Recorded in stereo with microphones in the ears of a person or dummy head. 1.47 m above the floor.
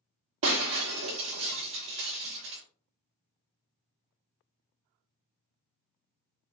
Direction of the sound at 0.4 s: 25° right (ahead or behind).